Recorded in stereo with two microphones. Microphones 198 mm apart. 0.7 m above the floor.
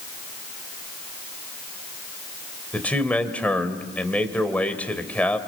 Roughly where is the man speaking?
Centre.